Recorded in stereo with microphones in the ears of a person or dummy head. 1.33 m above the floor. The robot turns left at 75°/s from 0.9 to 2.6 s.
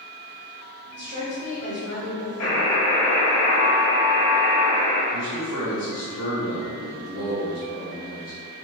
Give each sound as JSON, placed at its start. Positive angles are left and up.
{"t": 0.9, "sound": "a woman speaking", "azimuth_deg": -125, "distance_m": 1.4}
{"t": 2.4, "sound": "a buzzer", "side_deg": 75, "distance_m": 1.3}
{"t": 5.1, "sound": "a man speaking", "side_deg": 80, "distance_m": 1.8}